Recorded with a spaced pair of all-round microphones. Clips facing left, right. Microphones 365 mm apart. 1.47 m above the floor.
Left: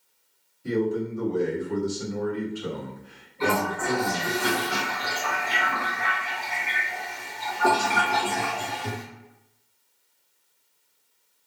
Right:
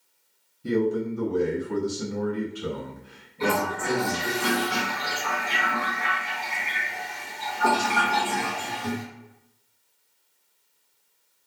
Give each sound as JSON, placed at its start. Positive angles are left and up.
{"t": 0.6, "sound": "a man speaking", "side_deg": -45, "distance_m": 0.8}
{"t": 3.4, "sound": "a toilet flushing", "side_deg": -40, "distance_m": 1.9}